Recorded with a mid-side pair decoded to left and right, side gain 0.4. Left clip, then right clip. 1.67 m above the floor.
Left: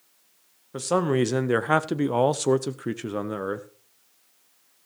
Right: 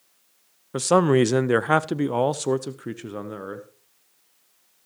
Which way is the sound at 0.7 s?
55° right.